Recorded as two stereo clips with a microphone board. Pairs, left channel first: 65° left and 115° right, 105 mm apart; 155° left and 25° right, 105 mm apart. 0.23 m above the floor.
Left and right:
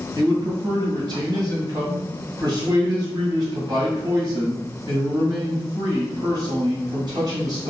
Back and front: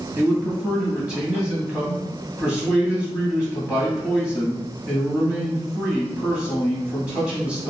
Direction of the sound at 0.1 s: 100° right.